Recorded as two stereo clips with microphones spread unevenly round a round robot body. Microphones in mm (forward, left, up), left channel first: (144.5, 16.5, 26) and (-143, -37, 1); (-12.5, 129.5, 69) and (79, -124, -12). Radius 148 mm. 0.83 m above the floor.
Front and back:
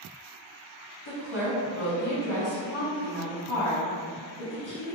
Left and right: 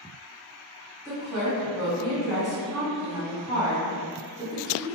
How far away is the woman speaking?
About 1.9 m.